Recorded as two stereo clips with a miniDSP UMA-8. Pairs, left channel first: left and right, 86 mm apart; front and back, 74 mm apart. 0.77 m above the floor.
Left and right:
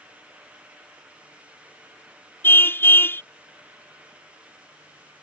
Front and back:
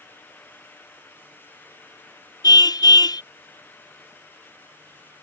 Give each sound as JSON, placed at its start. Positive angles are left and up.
{"t": 2.4, "sound": "a car horn", "azimuth_deg": 25}